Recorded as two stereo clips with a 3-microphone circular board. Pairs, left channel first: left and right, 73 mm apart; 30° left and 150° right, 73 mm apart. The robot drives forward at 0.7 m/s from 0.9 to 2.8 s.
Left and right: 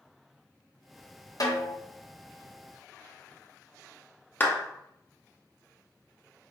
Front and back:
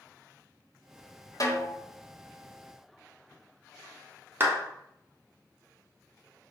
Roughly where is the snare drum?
Ahead left.